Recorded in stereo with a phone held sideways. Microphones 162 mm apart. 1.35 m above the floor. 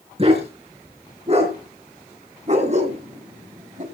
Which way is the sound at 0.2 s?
40° right (ahead or behind).